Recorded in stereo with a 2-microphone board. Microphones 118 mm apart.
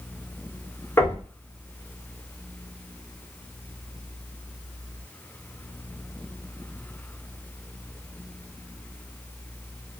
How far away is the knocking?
About 1.6 m.